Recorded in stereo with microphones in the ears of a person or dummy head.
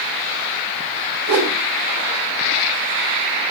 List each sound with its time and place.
1.3 s a whoosh: 80° right, 3 m